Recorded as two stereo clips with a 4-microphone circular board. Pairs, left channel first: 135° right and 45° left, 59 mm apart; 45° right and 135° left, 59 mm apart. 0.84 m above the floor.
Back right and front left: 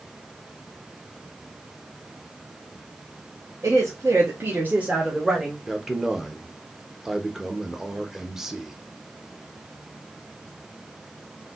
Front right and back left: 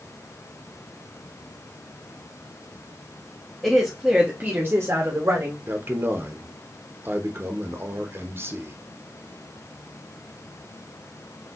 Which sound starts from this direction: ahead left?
A woman speaking, at 3.6 s.